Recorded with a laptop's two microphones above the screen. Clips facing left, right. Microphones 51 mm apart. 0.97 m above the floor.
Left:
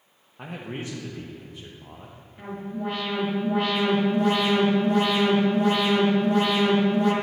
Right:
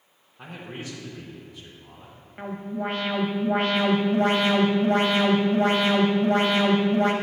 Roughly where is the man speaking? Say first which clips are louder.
Left 3 dB; left.